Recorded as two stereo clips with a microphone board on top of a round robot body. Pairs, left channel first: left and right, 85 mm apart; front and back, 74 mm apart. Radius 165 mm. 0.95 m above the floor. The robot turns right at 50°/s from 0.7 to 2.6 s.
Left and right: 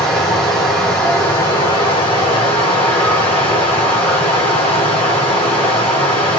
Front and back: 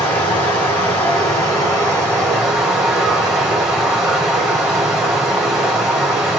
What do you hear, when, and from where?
0.0 s running water: straight ahead, 1.1 m; by 6.4 s 95° left, 1.1 m